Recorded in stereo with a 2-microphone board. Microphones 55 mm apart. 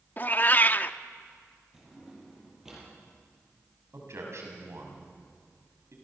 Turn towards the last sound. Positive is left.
turn(degrees=-60)  # may be behind; listen again after turning